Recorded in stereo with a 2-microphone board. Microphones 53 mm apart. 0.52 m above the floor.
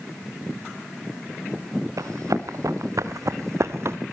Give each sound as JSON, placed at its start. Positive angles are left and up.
{"t": 2.0, "sound": "running footsteps", "side_deg": -75, "distance_m": 2.5}